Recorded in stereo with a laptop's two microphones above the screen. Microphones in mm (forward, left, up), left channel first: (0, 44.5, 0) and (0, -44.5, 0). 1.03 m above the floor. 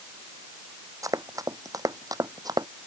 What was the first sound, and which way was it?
Running footsteps, 40° right (ahead or behind).